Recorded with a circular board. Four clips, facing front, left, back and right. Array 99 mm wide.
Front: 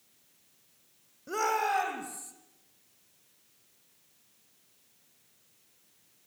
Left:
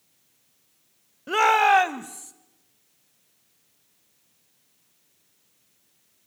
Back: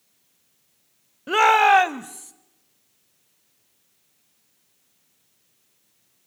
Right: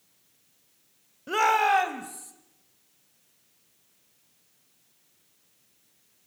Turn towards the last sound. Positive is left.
turn(degrees=155)